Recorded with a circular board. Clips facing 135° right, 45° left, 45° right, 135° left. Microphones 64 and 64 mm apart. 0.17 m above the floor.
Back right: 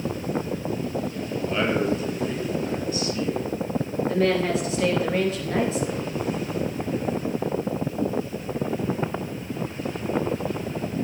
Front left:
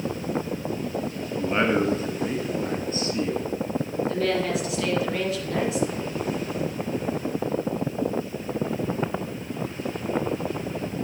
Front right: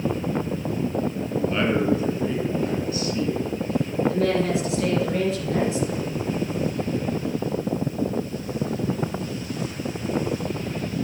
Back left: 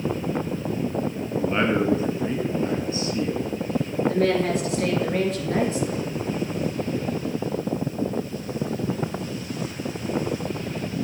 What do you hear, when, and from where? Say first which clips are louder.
1.4 s a man speaking: front left 2 dB, back left 1 dB; 85° left, 1.5 m
4.1 s a woman speaking: back right 4 dB, back left 1 dB; 170° left, 3 m